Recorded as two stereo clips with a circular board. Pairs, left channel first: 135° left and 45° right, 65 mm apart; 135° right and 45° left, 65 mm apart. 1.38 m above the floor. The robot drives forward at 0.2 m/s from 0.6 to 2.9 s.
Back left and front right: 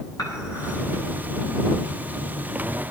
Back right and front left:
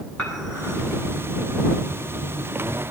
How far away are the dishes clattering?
About 8 m.